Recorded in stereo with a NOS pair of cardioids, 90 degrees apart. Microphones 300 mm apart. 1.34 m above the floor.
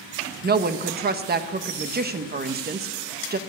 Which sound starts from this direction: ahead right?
A woman speaking, at 0.4 s.